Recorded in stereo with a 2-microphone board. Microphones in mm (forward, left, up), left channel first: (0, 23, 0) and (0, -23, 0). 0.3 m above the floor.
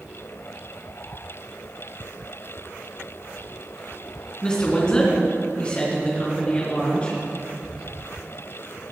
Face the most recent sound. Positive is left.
turn(degrees=25)  # may be behind; listen again after turning